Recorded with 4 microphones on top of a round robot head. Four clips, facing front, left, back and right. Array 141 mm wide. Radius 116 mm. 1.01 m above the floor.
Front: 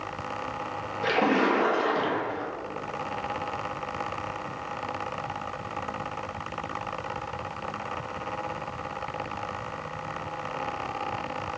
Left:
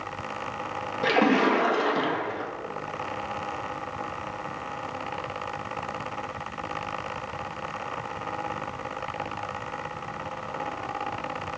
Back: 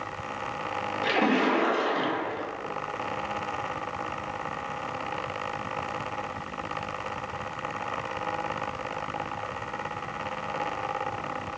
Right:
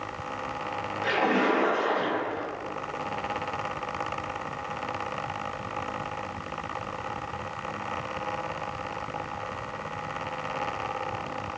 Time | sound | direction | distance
1.0 | a splash | 95° left | 1.9 m